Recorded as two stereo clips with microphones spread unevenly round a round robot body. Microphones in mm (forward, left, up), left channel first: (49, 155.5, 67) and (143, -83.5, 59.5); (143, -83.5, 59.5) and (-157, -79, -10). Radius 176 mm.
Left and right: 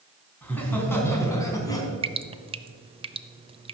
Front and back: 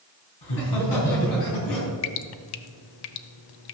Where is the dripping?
5° left, 0.7 m.